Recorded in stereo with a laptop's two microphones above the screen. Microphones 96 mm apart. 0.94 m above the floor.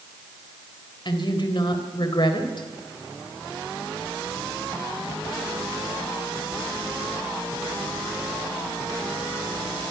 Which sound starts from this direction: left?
A woman speaking, at 1.1 s.